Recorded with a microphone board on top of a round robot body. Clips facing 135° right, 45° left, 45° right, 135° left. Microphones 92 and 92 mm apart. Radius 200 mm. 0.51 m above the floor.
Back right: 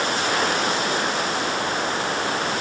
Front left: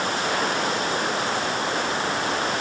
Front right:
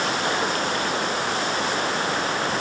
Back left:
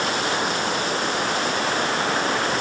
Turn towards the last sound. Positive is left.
No sound to turn to.